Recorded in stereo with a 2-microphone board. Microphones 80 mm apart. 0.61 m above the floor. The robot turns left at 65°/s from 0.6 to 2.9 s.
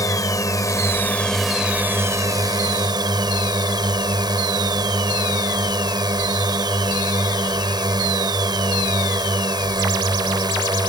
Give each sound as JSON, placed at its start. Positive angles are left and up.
{"t": 0.0, "sound": "a drone", "azimuth_deg": 55}